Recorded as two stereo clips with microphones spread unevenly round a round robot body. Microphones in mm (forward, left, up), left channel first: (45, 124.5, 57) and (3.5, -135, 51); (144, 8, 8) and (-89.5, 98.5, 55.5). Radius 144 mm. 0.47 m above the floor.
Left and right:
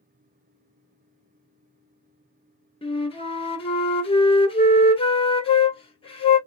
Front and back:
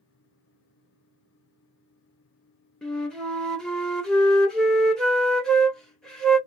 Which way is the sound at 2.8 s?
40° left.